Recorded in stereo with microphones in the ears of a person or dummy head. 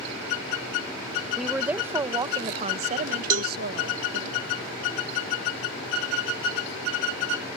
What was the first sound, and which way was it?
A woman speaking, centre (ahead or behind).